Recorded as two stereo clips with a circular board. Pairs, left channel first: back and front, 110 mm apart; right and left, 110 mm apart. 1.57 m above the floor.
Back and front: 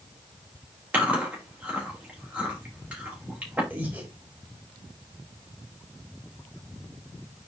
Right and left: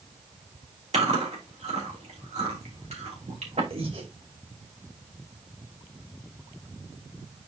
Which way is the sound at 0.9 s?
75° left.